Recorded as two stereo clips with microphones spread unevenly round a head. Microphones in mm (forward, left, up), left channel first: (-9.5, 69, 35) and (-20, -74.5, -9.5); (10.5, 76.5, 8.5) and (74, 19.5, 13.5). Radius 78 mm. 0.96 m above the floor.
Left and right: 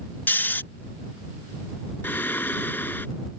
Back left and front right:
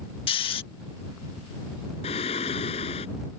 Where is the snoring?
170° left.